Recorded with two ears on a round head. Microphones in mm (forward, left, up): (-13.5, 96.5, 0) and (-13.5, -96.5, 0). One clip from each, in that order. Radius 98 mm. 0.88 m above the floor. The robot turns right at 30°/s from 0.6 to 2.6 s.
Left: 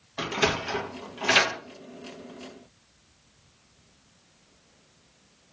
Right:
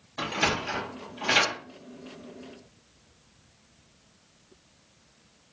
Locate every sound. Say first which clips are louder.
0.2 s a sliding door: left 1 dB; 10° left (ahead or behind), 0.6 m; by 1.6 s 20° left (ahead or behind), 0.6 m